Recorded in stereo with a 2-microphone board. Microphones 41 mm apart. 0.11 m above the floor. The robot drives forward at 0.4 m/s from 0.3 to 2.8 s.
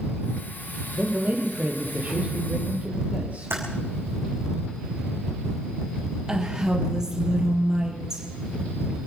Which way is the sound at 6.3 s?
15° right (ahead or behind).